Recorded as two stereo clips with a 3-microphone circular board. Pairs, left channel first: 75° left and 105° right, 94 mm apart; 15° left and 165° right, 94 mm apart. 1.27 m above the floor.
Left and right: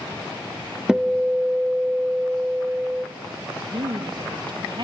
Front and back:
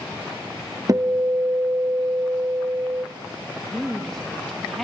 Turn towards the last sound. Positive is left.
turn(degrees=-70)